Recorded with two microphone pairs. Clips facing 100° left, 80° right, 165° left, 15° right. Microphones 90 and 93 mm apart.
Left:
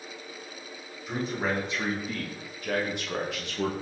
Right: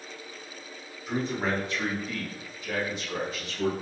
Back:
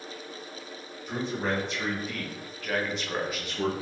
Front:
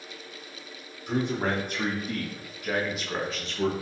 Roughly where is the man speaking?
Ahead.